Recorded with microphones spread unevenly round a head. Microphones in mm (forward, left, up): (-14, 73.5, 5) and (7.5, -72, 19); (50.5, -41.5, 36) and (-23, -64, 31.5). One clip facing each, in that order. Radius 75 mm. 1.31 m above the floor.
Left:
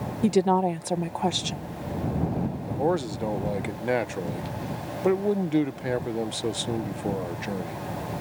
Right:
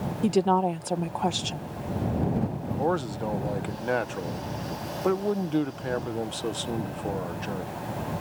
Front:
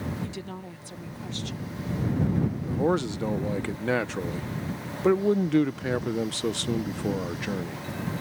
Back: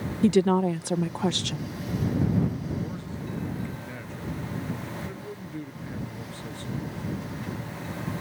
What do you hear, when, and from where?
0.2 s a woman speaking: straight behind
2.7 s a man speaking: 25° left